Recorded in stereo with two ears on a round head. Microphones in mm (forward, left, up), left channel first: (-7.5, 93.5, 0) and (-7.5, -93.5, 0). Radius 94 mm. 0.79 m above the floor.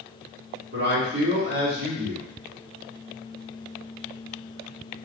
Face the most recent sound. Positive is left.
turn(degrees=-55)  # may be behind; listen again after turning